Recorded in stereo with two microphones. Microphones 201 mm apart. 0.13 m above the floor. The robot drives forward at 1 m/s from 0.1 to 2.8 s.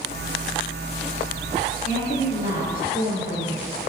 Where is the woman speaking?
40° left (ahead or behind), 2.5 m; by 3.6 s 45° left (ahead or behind), 2.5 m.